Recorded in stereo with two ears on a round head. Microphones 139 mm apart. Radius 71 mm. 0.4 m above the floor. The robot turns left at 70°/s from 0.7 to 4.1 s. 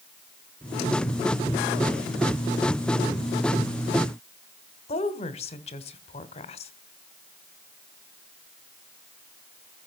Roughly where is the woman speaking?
Left.